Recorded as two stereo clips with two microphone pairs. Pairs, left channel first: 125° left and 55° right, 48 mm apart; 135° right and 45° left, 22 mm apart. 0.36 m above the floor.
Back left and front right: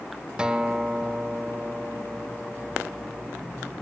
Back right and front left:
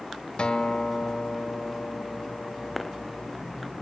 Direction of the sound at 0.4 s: 120° right.